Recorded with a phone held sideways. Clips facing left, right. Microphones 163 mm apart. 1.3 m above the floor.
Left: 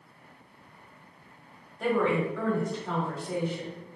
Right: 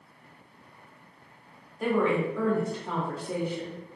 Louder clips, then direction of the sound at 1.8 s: Right 1 dB; 5° right (ahead or behind).